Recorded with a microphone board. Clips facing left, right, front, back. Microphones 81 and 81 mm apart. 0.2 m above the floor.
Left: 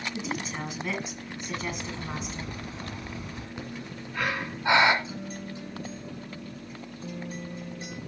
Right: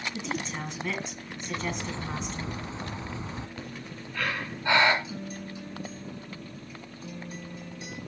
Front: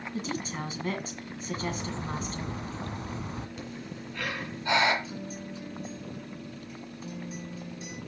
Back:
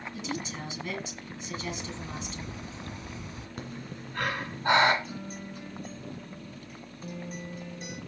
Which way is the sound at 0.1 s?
5° left.